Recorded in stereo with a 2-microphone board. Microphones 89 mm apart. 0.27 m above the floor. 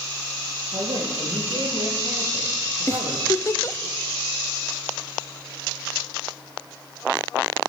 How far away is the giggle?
About 1.0 m.